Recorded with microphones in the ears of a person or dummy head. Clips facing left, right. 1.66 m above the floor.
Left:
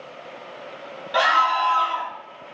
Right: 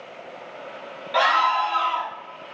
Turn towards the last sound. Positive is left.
turn(degrees=0)  # may be behind; listen again after turning